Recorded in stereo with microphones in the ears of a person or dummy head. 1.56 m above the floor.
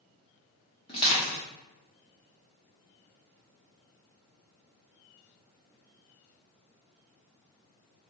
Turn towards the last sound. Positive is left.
turn(degrees=30)  # may be behind; listen again after turning